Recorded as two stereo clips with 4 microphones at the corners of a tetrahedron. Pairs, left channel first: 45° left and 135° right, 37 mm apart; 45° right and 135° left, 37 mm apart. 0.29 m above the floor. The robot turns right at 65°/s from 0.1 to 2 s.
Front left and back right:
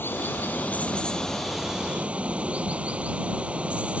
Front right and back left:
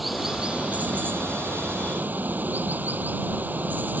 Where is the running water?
45° left; by 4.0 s 170° left.